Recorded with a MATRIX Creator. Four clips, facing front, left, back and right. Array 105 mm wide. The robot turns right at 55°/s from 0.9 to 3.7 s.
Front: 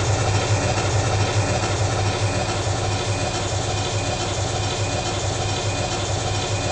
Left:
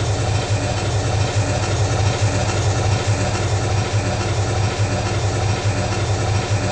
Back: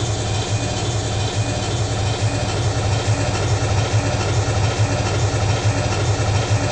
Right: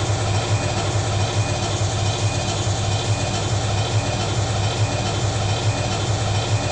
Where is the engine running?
Straight ahead, 1.0 m; by 6.7 s 150° left, 1.0 m.